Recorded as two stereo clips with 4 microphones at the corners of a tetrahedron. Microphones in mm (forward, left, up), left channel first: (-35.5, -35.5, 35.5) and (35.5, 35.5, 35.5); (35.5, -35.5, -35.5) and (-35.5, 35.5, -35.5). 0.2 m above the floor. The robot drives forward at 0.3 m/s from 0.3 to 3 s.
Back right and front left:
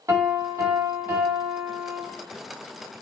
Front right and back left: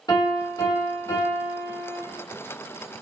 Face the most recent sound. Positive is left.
turn(degrees=-50)